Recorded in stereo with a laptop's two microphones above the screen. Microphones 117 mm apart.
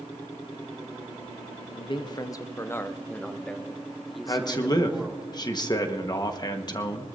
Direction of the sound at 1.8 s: 45° left (ahead or behind).